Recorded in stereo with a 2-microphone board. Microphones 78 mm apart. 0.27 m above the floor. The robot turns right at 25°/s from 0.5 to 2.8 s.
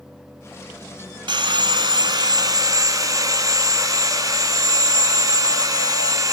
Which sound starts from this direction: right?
Sawing, at 1.3 s.